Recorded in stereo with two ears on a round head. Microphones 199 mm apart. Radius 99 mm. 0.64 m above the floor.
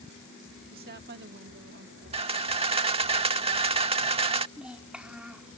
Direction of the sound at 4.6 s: 5° right (ahead or behind).